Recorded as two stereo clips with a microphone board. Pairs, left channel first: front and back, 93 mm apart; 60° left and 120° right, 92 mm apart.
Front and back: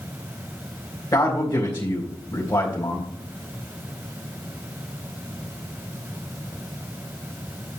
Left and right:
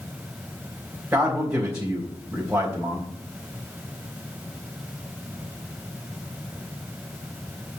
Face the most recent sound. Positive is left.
turn(degrees=-55)